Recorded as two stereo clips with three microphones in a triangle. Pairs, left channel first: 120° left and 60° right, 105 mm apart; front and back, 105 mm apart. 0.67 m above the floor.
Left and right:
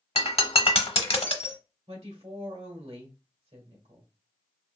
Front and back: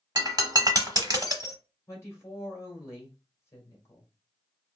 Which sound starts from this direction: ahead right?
A woman speaking, at 1.9 s.